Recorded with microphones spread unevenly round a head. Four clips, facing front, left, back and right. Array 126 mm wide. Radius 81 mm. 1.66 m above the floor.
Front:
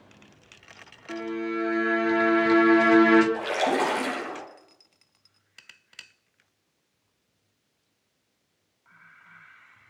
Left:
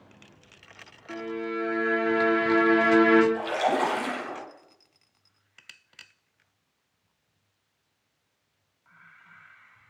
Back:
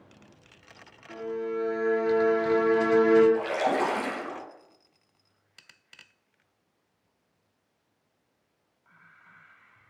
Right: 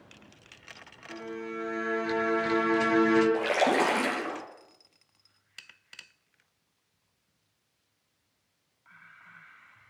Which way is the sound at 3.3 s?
75° right.